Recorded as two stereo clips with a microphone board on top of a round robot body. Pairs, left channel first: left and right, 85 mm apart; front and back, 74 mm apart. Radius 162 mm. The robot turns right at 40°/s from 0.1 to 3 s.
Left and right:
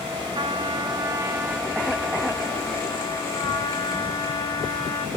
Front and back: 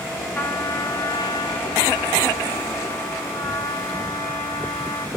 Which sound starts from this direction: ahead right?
A trumpet, at 0.3 s.